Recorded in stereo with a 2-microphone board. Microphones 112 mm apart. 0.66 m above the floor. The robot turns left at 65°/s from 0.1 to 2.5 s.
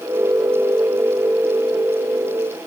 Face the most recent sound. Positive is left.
No sound to turn to.